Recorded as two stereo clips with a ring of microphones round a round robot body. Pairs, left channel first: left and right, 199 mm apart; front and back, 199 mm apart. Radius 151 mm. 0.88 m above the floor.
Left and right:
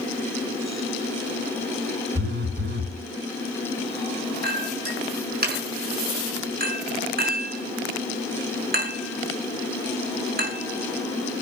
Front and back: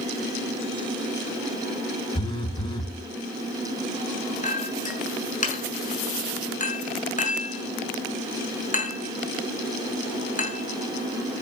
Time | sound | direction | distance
2.1 | a phone buzzing | 65° right | 1.9 m
4.4 | a clink | 50° right | 6 m